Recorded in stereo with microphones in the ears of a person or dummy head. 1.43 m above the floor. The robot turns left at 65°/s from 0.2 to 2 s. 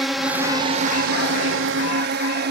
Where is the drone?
5° left; by 2.5 s 115° right.